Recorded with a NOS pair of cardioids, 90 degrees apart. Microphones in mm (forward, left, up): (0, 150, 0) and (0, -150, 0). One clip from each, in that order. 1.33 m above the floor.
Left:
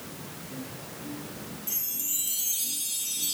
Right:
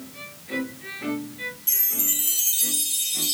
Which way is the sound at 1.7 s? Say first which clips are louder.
Right 6 dB; 55° right.